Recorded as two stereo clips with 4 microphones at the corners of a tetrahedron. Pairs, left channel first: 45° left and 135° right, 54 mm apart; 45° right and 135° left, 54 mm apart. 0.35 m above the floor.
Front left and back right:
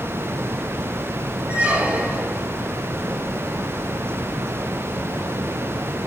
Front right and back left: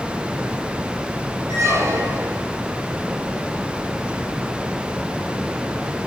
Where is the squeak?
160° left, 5 m.